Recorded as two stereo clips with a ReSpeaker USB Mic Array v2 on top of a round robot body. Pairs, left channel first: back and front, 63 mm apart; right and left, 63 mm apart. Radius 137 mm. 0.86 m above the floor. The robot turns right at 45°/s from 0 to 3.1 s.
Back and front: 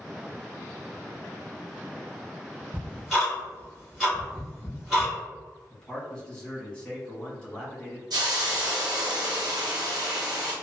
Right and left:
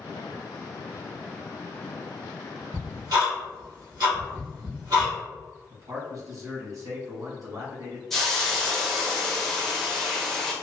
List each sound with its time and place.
2.7 s ticking: 65° left, 1.9 m; by 5.1 s 80° left, 1.9 m
5.7 s a man speaking: 105° left, 1.8 m
8.1 s a hiss: 5° right, 0.8 m